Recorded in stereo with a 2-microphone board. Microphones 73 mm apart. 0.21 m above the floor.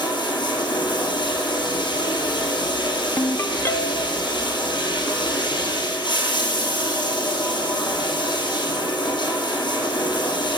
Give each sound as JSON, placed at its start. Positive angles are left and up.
{"t": 0.0, "sound": "running water", "side_deg": 75, "distance_m": 2.0}
{"t": 3.2, "sound": "a ringtone", "side_deg": 35, "distance_m": 0.7}